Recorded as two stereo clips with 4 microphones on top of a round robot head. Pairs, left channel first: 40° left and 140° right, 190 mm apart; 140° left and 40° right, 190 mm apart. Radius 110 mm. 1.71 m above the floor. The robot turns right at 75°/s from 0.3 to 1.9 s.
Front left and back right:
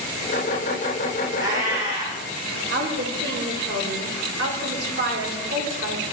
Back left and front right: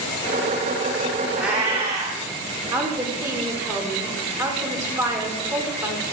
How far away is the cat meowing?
About 1.1 m.